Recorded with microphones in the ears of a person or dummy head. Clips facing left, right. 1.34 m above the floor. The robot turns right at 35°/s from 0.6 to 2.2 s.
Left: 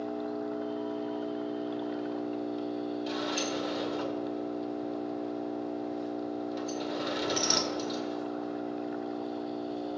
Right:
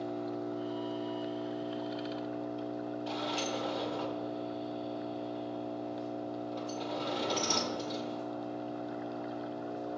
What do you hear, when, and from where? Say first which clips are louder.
0.0 s an engine running: left 2 dB; 35° right, 3 m; by 10.0 s 25° left, 3 m
3.1 s a sliding door: left 3 dB; 20° left (ahead or behind), 1.8 m